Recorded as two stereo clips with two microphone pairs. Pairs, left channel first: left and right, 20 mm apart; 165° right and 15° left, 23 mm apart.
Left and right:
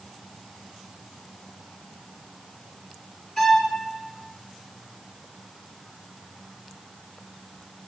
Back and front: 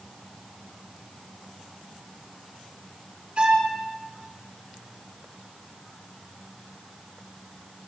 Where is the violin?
35° left, 3 m.